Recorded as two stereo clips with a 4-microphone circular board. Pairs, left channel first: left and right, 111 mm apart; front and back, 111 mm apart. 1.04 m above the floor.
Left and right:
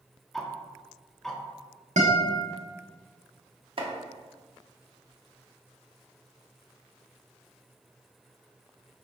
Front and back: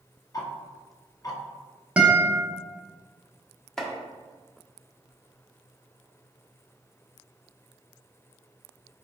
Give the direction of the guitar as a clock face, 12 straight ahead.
3 o'clock.